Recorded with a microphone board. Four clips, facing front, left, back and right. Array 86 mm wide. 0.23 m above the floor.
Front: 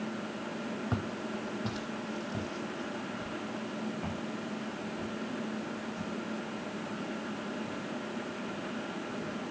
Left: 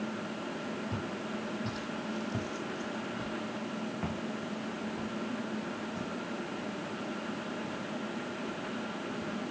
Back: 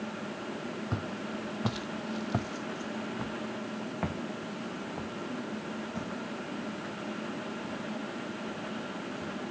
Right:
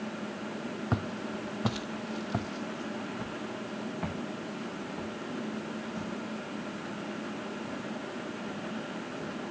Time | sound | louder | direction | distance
0.9 | footsteps | right 3 dB, even | 75° right | 0.6 m